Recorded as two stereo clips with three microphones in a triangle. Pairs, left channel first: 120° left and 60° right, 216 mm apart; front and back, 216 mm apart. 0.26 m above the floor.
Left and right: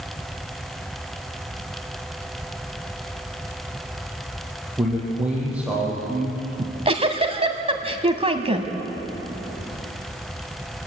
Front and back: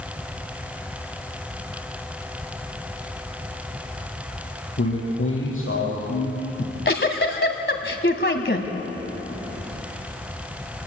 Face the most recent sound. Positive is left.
turn(degrees=-5)